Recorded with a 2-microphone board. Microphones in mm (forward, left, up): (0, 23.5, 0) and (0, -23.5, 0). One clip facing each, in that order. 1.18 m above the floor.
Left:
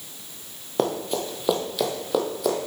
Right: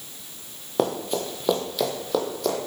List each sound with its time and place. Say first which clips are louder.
0.8 s running footsteps: even; centre (ahead or behind), 1.3 m; by 2.6 s 5° left (ahead or behind), 2 m